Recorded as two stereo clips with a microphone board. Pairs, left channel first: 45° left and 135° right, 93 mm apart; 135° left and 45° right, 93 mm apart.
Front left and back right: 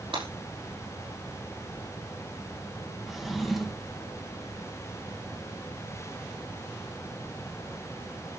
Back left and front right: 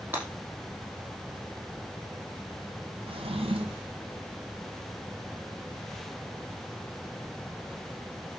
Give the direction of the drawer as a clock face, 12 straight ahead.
2 o'clock.